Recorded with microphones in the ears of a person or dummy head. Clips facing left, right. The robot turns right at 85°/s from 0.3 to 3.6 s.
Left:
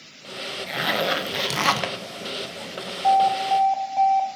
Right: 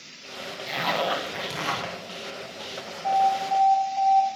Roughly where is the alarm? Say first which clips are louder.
Left 4 dB; ahead left.